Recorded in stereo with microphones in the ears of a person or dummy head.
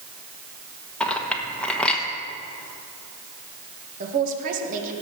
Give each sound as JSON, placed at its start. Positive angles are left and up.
{"t": 1.0, "sound": "a clink", "side_deg": 10, "distance_m": 1.2}
{"t": 4.0, "sound": "a man speaking", "side_deg": -50, "distance_m": 1.8}